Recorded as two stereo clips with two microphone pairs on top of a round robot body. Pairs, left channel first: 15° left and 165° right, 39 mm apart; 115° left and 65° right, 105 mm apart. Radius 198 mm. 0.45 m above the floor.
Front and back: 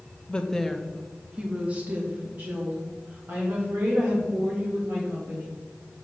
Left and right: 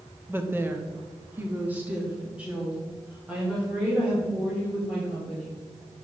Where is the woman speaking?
30° right, 1.1 m; by 5.6 s 145° right, 4 m.